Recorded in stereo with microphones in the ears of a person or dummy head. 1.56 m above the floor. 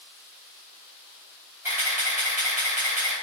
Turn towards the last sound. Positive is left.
turn(degrees=-15)  # may be behind; listen again after turning